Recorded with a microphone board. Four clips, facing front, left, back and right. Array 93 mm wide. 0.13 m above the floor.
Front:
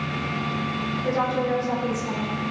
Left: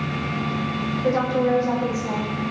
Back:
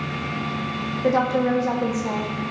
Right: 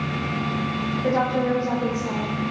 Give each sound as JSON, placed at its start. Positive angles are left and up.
{"t": 1.0, "sound": "a woman speaking", "azimuth_deg": 175, "distance_m": 7.5}